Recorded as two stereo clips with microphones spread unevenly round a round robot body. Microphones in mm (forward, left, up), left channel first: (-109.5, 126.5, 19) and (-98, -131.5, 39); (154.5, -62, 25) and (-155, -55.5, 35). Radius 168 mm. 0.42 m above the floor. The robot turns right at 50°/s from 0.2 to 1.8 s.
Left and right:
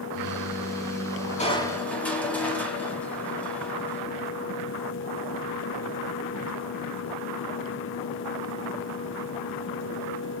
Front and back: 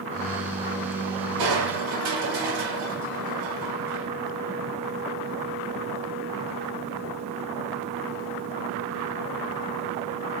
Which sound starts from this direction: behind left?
Crushing, at 1.4 s.